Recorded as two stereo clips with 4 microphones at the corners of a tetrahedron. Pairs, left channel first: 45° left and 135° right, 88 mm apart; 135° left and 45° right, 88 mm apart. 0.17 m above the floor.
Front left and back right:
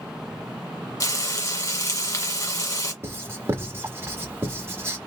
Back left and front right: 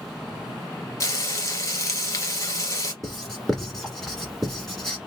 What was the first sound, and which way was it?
Frying, 90° left.